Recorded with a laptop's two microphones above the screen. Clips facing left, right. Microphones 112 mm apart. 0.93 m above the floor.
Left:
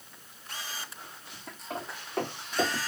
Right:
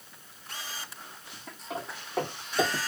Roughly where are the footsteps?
Centre.